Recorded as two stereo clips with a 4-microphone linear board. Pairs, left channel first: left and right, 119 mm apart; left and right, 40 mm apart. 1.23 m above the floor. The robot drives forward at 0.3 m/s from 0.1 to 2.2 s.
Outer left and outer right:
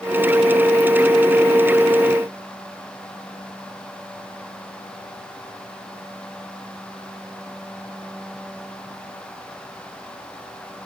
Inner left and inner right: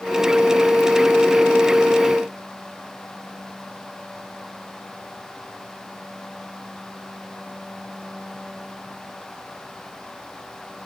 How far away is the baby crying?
I don't hear a baby crying.